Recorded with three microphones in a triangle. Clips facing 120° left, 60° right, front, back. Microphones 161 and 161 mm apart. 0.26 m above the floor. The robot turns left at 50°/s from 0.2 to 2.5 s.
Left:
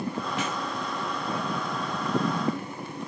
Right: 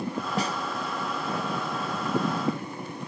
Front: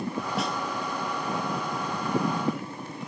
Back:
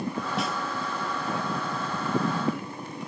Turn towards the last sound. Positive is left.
turn(degrees=165)